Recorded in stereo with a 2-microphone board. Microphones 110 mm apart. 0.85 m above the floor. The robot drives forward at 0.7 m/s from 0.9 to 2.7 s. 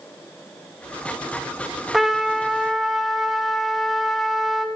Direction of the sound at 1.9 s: Centre (ahead or behind).